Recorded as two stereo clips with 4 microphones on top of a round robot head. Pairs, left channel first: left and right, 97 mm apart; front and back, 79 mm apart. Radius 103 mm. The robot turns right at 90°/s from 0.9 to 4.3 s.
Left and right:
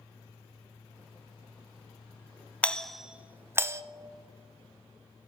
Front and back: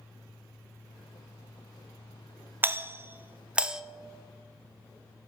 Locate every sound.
2.6 s a doorbell: 155° left, 0.6 m; by 3.8 s 100° right, 0.6 m